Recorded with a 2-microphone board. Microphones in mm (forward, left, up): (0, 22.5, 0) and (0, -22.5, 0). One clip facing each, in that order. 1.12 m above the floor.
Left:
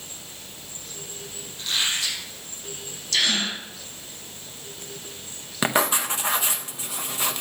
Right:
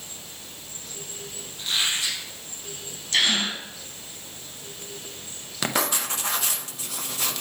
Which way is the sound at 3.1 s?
30° right (ahead or behind).